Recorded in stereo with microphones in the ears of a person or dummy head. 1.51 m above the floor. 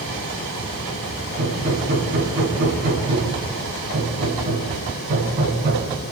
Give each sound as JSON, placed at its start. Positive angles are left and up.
{"t": 1.4, "sound": "hammering", "side_deg": -55, "distance_m": 6.5}